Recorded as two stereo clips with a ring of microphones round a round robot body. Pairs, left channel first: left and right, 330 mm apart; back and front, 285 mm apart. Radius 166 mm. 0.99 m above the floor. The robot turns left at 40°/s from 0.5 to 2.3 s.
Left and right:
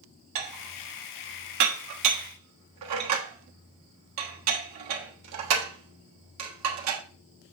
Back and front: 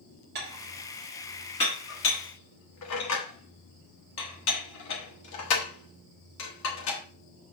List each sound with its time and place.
0.3 s dishes clattering: 60° right, 1.2 m; by 7.0 s 135° right, 1.2 m